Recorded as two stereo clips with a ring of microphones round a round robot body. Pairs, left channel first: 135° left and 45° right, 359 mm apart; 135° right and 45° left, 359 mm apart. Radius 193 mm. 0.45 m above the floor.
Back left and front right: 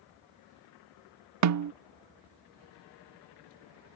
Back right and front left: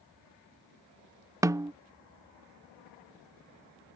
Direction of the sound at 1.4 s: 35° right.